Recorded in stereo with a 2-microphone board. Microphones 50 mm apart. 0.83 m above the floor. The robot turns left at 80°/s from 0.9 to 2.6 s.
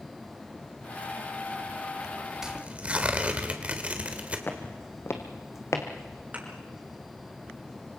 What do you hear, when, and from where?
2.4 s tearing paper: 10° right (ahead or behind), 2 m; by 4.4 s 25° right (ahead or behind), 2 m
4.5 s footsteps: 40° left (ahead or behind), 2 m; by 5.8 s 75° left (ahead or behind), 2.5 m
6.3 s a thud: 30° right (ahead or behind), 5 m